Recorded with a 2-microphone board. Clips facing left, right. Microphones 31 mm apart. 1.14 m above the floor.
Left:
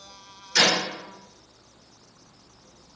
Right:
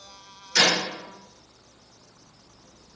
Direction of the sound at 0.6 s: 15° right (ahead or behind).